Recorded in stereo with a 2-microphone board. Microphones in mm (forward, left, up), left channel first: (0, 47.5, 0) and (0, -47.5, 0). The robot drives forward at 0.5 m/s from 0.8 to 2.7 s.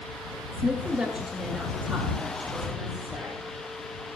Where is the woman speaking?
15° right (ahead or behind), 1.8 m; by 3.5 s 10° right (ahead or behind), 2.5 m.